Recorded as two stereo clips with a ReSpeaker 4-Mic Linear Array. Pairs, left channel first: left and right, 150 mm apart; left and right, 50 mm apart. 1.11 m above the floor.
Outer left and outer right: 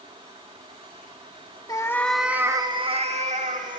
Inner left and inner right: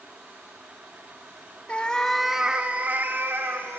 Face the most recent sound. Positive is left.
turn(degrees=-60)  # may be behind; listen again after turning